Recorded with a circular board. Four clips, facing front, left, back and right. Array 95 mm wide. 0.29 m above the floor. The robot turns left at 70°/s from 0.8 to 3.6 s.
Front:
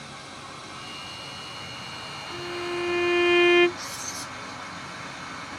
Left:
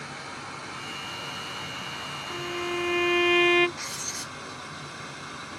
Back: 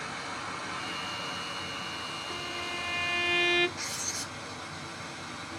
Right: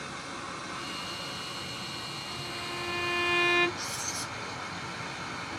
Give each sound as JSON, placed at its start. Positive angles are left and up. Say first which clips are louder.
{"t": 0.0, "sound": "running water", "louder": "left 1 dB, back 4 dB", "azimuth_deg": 150, "distance_m": 1.6}
{"t": 2.3, "sound": "a violin", "louder": "left 10 dB, front 10 dB", "azimuth_deg": 110, "distance_m": 0.6}
{"t": 3.8, "sound": "writing", "louder": "right 1 dB, front 2 dB", "azimuth_deg": 135, "distance_m": 0.8}